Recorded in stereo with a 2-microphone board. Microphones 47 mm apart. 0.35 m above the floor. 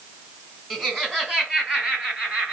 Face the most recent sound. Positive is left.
turn(degrees=-20)  # may be behind; listen again after turning